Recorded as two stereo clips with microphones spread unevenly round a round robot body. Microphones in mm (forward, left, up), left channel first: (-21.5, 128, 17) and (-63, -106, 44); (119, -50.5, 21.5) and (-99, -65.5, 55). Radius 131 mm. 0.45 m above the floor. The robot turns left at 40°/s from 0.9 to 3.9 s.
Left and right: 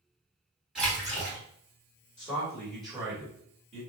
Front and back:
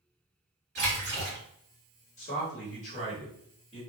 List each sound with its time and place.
0.8 s a splash: 165° left, 1.6 m; by 1.4 s 150° left, 1.6 m
2.2 s a man speaking: 25° left, 1.5 m; by 3.8 s 40° right, 1.5 m